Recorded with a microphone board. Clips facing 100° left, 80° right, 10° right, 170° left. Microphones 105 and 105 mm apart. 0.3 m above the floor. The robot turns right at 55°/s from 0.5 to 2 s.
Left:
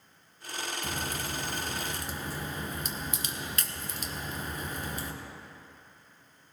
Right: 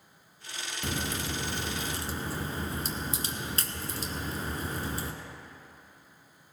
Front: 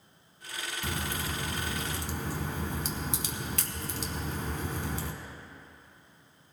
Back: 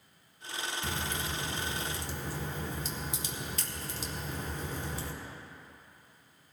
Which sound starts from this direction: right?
A crack, at 0.8 s.